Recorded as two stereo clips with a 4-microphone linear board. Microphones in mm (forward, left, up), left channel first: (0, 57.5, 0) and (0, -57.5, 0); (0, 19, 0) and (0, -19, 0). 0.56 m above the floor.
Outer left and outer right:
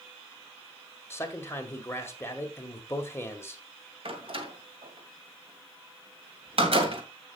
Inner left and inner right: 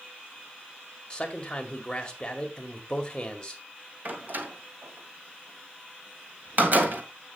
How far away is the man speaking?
About 1.9 m.